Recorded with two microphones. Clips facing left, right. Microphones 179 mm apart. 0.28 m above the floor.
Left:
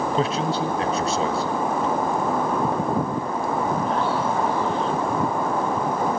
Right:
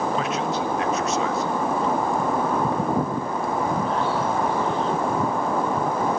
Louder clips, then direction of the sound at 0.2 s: Left 2 dB; 30° left (ahead or behind).